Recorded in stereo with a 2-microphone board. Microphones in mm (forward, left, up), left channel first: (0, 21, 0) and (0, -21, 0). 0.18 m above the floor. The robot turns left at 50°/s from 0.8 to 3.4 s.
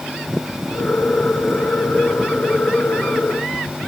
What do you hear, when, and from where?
Only background noise.